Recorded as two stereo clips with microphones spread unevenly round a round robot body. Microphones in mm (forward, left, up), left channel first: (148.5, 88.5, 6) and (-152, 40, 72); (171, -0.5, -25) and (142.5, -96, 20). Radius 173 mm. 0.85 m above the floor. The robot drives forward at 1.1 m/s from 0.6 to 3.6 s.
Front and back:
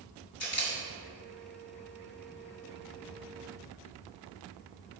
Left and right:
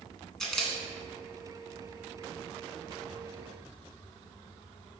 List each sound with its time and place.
0.4 s a camera shutter: 25° right, 1.7 m; by 5.0 s 160° right, 2 m